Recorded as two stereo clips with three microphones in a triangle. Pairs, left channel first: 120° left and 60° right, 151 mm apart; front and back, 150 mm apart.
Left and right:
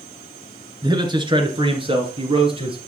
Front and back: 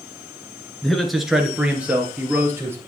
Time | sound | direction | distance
0.8 | a man speaking | 85° right | 1.7 m